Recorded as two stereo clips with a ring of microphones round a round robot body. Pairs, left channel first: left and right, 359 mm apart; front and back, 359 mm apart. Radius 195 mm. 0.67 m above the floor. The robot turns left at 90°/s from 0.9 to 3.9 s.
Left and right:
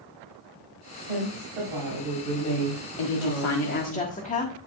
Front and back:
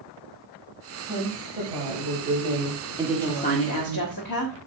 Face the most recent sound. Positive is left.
turn(degrees=20)